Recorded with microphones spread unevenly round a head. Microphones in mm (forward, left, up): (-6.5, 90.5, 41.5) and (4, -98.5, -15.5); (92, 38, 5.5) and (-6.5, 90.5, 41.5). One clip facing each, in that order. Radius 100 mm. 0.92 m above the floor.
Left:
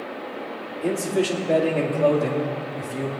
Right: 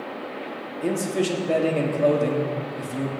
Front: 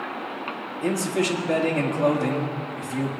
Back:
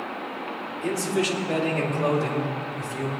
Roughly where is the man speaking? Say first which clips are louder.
Left 1 dB, front 1 dB; ahead right.